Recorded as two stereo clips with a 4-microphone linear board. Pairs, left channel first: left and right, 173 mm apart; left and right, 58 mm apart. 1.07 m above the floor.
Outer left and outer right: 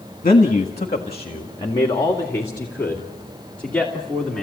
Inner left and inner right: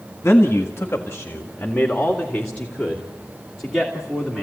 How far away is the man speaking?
About 1.7 m.